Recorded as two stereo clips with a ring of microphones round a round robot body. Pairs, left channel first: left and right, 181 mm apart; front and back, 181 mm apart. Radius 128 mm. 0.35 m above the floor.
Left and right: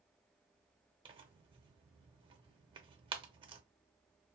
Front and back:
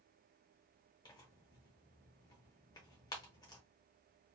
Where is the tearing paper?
55° right, 0.7 m.